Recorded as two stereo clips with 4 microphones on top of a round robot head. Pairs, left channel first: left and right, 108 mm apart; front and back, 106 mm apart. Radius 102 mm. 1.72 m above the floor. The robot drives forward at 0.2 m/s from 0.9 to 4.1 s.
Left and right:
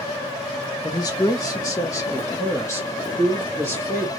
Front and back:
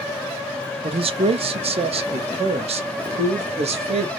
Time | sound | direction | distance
0.8 | a man speaking | 150° left | 0.7 m